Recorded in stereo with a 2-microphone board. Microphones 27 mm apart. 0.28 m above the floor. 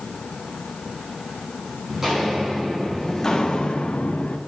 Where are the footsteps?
20° right (ahead or behind), 2.5 m; by 4.4 s 80° left, 1.3 m.